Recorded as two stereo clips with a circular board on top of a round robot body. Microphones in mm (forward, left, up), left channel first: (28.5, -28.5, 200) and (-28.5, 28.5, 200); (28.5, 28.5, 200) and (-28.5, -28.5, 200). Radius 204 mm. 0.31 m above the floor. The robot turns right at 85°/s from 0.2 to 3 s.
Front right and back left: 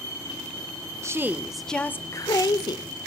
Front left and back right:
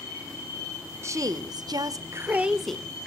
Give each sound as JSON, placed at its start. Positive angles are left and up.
{"t": 1.0, "sound": "a woman speaking", "azimuth_deg": 175, "distance_m": 1.5}